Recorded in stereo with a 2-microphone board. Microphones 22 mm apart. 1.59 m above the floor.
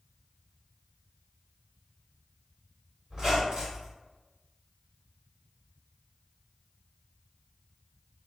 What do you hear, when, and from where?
3.1 s a squeak: 30° right (ahead or behind), 1.8 m